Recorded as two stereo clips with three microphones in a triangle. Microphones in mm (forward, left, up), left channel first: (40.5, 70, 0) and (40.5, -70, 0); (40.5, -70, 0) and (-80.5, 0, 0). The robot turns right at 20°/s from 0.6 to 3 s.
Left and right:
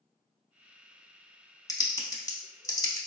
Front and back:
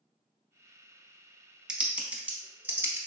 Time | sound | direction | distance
1.7 | typing on a keyboard | 75° left | 0.5 m